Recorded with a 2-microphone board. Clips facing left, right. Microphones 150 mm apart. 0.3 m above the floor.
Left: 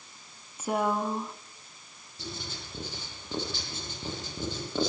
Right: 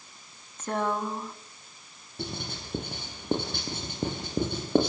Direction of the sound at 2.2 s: 60° right (ahead or behind).